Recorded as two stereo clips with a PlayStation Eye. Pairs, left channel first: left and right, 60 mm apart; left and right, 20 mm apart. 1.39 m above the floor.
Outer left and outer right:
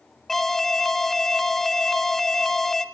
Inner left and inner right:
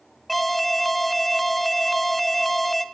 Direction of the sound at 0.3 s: 10° left (ahead or behind).